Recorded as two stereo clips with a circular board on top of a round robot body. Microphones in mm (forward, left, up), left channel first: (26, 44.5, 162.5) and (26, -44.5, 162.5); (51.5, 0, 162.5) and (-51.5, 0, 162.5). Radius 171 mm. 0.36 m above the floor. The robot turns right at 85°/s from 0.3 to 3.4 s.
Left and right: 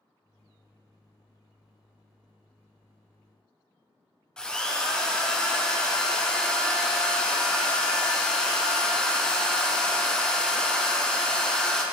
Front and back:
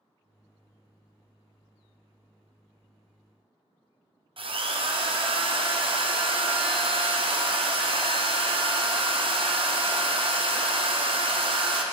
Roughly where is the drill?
Behind.